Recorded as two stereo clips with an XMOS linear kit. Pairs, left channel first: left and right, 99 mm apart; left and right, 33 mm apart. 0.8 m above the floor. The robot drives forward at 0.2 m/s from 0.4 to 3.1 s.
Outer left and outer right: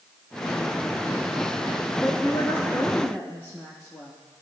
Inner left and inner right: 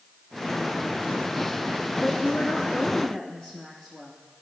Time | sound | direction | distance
2.0 | a woman speaking | 30° left (ahead or behind) | 0.8 m